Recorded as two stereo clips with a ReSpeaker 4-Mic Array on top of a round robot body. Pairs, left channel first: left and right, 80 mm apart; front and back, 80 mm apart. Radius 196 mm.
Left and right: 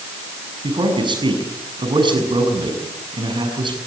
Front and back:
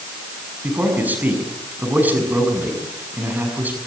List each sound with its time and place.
0.6 s a man speaking: 110° right, 6.5 m